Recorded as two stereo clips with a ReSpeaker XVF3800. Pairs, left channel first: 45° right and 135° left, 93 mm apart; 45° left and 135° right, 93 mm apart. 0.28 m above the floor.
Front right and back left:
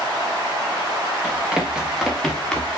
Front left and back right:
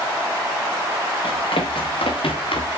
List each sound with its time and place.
1.2 s running footsteps: 55° left, 4.5 m; by 2.7 s 35° left, 3.5 m